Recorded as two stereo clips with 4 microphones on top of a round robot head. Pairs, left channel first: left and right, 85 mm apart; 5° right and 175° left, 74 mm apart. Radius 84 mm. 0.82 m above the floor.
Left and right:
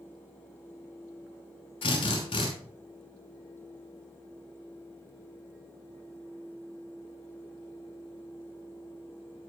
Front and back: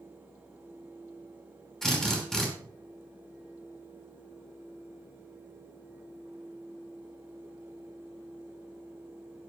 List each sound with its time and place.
1.8 s a drill: 80° left, 5.5 m